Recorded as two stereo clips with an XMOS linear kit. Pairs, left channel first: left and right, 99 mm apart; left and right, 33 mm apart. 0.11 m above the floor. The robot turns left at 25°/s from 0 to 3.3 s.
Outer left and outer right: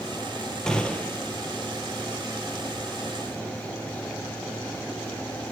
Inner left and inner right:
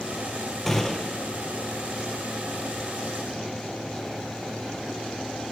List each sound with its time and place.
0.7 s a gunshot: 5° left (ahead or behind), 0.7 m; by 1.2 s 20° left (ahead or behind), 0.7 m